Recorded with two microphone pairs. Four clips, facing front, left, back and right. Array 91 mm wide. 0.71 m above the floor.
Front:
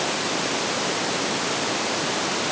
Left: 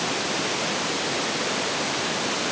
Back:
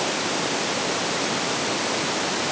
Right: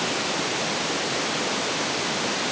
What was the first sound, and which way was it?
Only background noise.